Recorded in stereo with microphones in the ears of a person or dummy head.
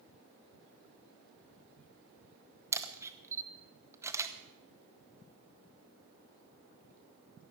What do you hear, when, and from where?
2.7 s a camera shutter: 15° right (ahead or behind), 0.9 m